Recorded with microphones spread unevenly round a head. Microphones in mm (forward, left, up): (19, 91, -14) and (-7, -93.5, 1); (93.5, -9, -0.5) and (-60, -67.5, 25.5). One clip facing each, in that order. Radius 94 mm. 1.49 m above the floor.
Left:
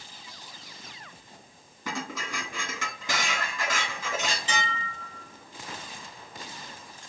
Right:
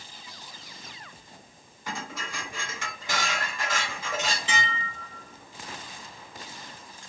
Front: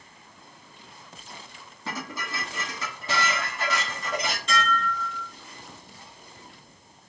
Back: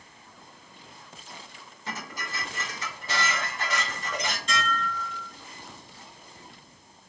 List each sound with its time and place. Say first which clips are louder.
1.9 s dishes clattering: left 2 dB, front 3 dB; 65° left, 1.6 m
4.5 s dishes clattering: even, front 4 dB; 30° left, 2 m